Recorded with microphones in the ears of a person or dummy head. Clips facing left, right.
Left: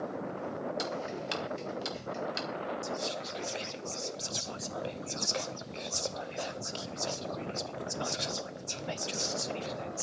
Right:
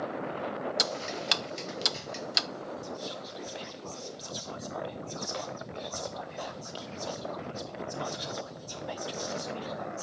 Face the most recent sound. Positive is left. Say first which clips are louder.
# left 2 dB
turn(degrees=25)  # may be behind; listen again after turning